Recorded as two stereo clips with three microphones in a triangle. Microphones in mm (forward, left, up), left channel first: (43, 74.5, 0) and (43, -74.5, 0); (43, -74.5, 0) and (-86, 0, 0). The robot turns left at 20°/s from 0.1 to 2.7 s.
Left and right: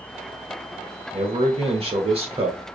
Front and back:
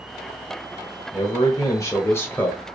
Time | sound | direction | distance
1.1 | a man speaking | 75° right | 1.1 m